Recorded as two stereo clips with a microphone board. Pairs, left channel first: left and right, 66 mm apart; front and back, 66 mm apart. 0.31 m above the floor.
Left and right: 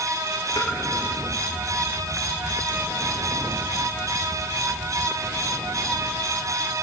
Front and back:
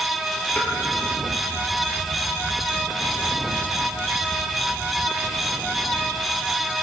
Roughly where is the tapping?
Left.